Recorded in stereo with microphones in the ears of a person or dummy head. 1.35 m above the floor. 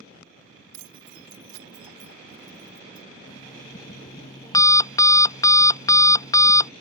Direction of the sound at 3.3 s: 20° left (ahead or behind).